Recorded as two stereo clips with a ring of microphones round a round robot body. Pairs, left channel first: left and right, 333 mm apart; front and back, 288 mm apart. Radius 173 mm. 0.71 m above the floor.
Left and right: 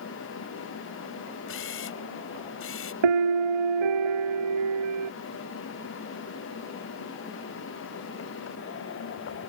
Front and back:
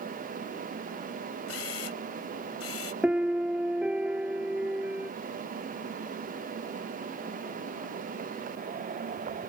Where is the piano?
95° right.